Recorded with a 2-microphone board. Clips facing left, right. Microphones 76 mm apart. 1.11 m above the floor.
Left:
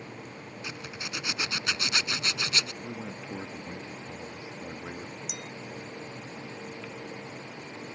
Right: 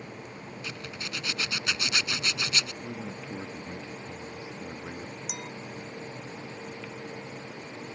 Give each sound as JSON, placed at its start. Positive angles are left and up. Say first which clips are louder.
{"t": 0.6, "sound": "a zipper", "louder": "even", "side_deg": 20}
{"t": 2.8, "sound": "a man speaking", "louder": "right 1 dB", "side_deg": 15}
{"t": 5.3, "sound": "a clink", "louder": "right 2 dB", "side_deg": -50}